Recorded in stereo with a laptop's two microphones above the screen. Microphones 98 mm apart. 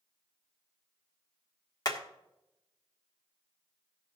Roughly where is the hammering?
Left.